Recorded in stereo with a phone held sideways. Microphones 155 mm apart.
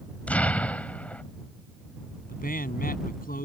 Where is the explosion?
10° left (ahead or behind).